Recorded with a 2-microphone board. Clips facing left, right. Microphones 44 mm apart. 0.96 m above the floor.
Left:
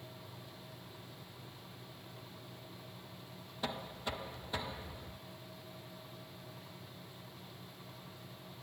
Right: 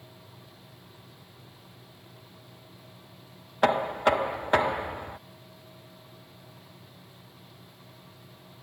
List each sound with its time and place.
3.6 s knocking: 60° right (ahead or behind)